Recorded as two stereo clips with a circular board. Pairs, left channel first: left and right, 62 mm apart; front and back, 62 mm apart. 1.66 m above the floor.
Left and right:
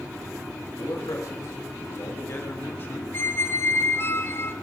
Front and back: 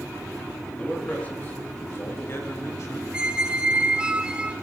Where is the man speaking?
70° left, 4 m; by 3.0 s 35° left, 4 m.